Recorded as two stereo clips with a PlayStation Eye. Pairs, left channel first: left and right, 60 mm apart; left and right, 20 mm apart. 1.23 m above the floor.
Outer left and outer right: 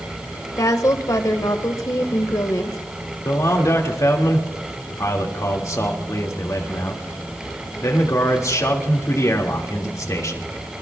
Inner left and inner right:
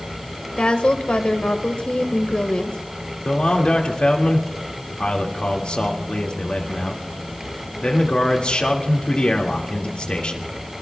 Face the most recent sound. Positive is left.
turn(degrees=60)  # may be behind; listen again after turning